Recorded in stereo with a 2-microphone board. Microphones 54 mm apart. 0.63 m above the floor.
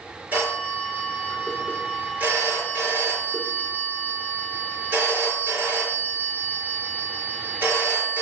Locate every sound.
0.3 s a phone ringing: 40° right (ahead or behind), 5.5 m